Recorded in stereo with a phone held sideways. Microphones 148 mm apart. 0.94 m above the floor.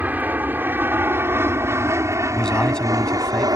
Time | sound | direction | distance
0.0 | an aircraft | 10° right (ahead or behind) | ?
2.3 | a man speaking | 5° left (ahead or behind) | ?